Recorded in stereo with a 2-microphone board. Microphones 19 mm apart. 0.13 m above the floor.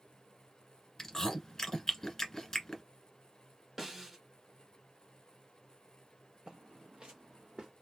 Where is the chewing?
25° left (ahead or behind), 1.4 m.